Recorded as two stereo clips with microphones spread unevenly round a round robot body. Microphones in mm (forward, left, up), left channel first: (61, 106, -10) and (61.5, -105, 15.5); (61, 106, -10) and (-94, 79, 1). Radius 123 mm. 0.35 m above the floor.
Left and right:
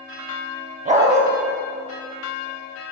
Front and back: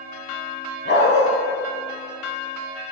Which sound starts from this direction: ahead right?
A dog barking, at 0.8 s.